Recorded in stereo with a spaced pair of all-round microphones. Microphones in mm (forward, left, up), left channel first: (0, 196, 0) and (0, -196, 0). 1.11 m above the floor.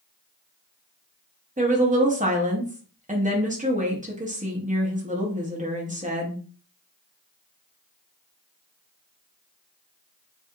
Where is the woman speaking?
20° right (ahead or behind), 0.6 m.